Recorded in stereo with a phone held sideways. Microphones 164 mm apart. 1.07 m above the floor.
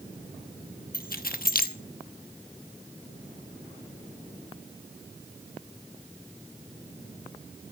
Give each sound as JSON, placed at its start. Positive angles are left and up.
{"t": 0.9, "sound": "keys jangling", "side_deg": 70, "distance_m": 1.0}